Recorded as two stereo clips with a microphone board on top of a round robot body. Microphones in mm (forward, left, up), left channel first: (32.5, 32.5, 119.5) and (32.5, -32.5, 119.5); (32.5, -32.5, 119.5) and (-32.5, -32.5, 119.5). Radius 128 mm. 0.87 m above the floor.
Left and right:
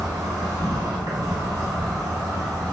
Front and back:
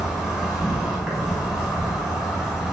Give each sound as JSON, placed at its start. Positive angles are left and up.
{"t": 0.0, "sound": "an insect", "azimuth_deg": -95, "distance_m": 1.1}